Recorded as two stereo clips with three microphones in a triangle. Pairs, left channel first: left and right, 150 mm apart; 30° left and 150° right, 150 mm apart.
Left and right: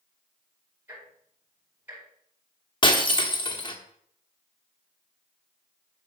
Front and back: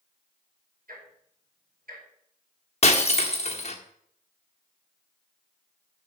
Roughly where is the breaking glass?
Ahead left.